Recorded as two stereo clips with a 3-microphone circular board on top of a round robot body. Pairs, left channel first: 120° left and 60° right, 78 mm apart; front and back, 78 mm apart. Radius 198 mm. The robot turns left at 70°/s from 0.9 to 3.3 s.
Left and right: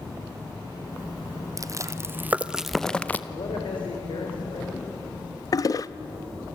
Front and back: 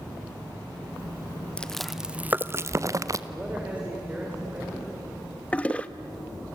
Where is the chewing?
70° right, 1.2 m; by 3.2 s 175° left, 1.2 m.